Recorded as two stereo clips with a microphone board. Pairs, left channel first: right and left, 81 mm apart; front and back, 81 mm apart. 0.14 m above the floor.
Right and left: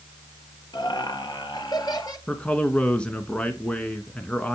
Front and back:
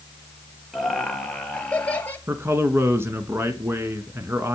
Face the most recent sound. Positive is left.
turn(degrees=-155)